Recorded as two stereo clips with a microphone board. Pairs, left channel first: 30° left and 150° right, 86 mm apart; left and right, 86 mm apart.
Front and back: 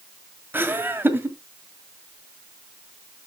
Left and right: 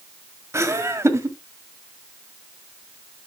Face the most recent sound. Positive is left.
turn(degrees=-110)